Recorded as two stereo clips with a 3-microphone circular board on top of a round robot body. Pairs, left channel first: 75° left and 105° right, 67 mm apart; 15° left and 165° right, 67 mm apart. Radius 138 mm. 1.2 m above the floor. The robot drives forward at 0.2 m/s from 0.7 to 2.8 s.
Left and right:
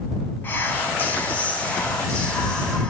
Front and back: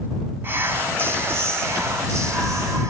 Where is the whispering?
135° left, 0.8 m; by 2.9 s 150° left, 1.2 m.